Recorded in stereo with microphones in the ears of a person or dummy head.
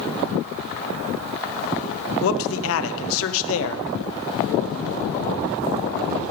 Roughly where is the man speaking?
Left.